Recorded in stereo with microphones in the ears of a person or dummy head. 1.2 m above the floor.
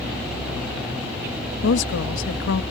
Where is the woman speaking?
60° left (ahead or behind).